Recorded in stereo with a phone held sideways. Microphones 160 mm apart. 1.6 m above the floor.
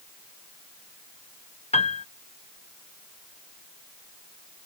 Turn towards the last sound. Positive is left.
turn(degrees=40)  # may be behind; listen again after turning